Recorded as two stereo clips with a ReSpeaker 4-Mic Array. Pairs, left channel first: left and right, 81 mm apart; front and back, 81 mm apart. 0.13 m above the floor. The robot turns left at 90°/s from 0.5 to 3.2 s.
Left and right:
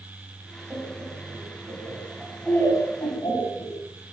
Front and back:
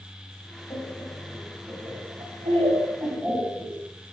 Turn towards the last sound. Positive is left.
turn(degrees=105)